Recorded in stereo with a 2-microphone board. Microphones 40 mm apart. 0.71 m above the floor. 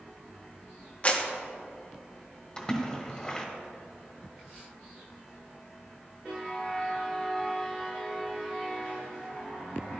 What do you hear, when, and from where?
1.0 s a clap: 35° left (ahead or behind), 0.9 m
2.6 s a splash: 20° left (ahead or behind), 1.4 m